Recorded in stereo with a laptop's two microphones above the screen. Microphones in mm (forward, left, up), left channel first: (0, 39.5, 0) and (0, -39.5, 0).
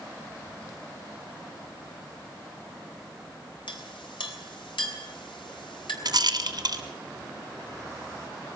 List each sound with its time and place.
3.7 s a clink: 90° left, 3.5 m
6.0 s a rattle: 55° right (ahead or behind), 2.0 m